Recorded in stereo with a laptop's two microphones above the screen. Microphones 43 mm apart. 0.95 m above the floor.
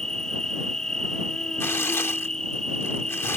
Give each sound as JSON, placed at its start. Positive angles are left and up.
{"t": 0.0, "sound": "an insect", "side_deg": 15}
{"t": 1.6, "sound": "tearing paper", "side_deg": 80}